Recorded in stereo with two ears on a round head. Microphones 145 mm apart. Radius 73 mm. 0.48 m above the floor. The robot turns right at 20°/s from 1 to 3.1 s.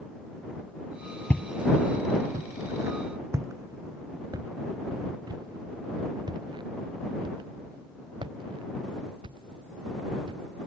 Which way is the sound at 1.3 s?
10° left (ahead or behind).